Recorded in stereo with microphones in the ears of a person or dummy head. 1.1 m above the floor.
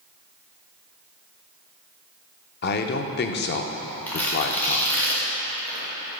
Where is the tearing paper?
10° left (ahead or behind), 2 m.